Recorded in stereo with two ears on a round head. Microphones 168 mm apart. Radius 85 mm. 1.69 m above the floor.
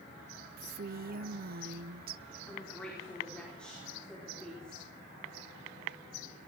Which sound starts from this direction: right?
A woman speaking, at 0.6 s.